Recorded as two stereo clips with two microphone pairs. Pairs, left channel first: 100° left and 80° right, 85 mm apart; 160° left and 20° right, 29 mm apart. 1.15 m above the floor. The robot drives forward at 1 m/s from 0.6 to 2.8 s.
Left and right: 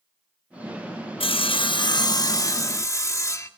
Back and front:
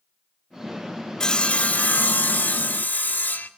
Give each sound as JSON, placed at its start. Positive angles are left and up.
{"t": 1.2, "sound": "sawing", "azimuth_deg": 95, "distance_m": 0.7}